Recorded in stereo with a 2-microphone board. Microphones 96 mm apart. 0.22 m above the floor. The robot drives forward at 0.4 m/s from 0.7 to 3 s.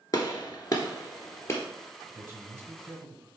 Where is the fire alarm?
No fire alarm in this recording.